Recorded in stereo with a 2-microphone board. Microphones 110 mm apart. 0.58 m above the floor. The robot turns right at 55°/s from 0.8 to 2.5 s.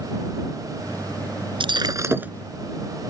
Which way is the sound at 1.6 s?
50° right.